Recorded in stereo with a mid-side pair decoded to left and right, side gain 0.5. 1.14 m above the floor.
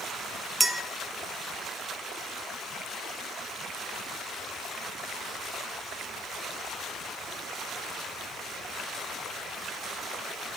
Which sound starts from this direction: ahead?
A clink, at 0.6 s.